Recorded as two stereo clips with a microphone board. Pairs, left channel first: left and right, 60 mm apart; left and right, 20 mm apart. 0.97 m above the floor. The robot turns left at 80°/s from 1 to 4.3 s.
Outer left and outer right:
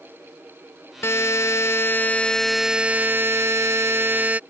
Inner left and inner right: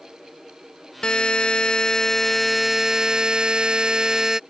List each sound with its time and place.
1.0 s a buzzer: 120° left; by 4.4 s 145° right